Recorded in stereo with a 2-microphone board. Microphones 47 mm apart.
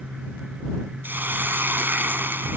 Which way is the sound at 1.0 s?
45° right (ahead or behind).